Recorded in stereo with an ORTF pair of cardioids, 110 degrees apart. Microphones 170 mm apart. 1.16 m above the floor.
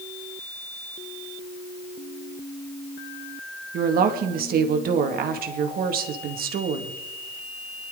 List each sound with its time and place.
3.7 s a woman speaking: 60° right, 2 m